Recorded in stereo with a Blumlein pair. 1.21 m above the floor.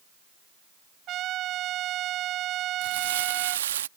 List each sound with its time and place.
1.1 s a trumpet: 35° right
2.8 s crumpling: 60° right